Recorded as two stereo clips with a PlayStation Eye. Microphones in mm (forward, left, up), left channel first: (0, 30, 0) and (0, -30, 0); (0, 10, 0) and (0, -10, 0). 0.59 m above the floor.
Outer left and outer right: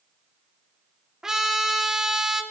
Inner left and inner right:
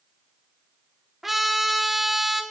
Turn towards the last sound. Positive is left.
turn(degrees=-10)  # may be behind; listen again after turning